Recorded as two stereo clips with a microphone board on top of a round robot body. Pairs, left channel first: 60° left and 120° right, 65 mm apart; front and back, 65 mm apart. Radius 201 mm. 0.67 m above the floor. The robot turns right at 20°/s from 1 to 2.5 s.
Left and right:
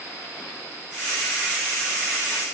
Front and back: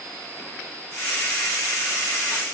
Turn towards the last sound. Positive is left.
No sound to turn to.